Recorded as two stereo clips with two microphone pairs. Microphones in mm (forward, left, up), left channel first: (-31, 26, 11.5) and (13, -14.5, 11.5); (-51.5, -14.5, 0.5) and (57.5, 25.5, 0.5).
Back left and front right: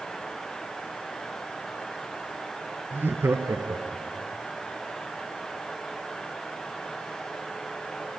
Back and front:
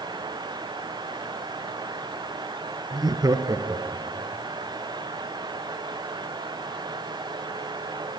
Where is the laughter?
5° right, 1.6 m; by 4.3 s 45° right, 3 m.